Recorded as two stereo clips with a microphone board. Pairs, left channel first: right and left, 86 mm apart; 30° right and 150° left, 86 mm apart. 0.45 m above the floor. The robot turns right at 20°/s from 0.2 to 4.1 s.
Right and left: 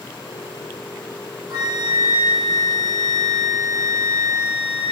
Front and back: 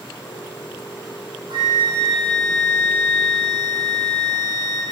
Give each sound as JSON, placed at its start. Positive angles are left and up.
{"t": 1.5, "sound": "a flute", "azimuth_deg": 120, "distance_m": 2.5}